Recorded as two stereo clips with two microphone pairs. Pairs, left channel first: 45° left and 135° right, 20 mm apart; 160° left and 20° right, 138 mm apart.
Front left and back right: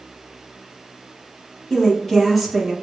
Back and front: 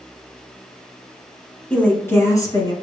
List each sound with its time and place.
1.7 s a woman speaking: 85° left, 1.3 m; by 2.7 s 145° left, 1.4 m